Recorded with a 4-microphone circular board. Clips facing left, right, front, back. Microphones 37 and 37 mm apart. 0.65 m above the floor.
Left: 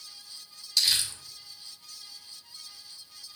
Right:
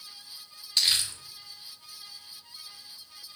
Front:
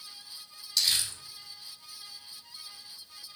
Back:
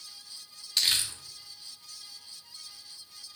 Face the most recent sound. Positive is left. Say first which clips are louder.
# right 1 dB, back 1 dB
turn(degrees=-135)